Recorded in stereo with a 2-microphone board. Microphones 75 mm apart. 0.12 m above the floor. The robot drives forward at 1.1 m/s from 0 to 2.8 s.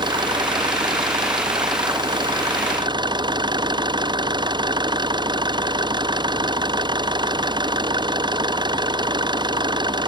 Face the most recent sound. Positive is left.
turn(degrees=-80)